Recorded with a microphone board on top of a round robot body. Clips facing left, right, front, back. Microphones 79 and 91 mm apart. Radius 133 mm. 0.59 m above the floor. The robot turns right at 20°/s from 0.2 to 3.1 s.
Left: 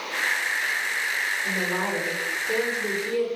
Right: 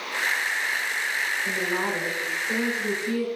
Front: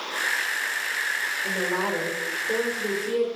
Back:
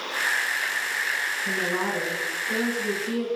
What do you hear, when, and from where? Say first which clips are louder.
1.4 s a woman speaking: even, front 1 dB; 15° left, 2.5 m; by 3.3 s 45° left, 2.5 m